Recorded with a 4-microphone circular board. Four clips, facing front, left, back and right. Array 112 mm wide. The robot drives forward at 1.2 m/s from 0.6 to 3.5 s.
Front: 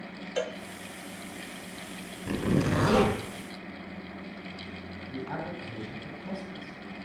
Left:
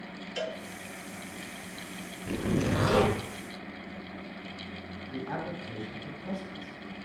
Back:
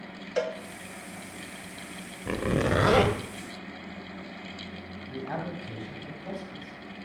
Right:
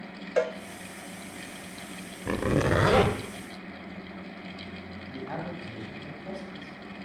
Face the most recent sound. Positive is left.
turn(degrees=-165)